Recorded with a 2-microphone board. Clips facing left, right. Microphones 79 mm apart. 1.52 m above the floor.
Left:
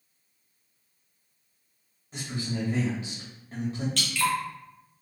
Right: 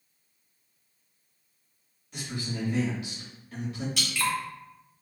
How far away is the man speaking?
About 1.9 m.